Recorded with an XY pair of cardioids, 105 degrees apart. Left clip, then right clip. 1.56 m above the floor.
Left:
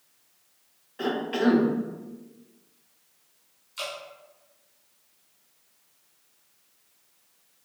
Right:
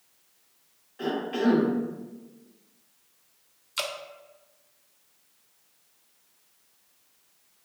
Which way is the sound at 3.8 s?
70° right.